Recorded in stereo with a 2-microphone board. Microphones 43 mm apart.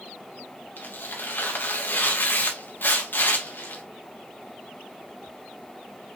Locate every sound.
0.8 s tearing paper: 50° left (ahead or behind), 2.5 m